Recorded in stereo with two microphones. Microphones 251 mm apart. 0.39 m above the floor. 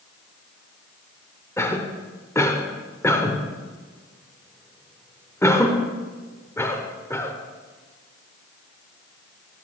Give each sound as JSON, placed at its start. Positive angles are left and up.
{"t": 1.6, "sound": "a cough", "side_deg": 10, "distance_m": 0.8}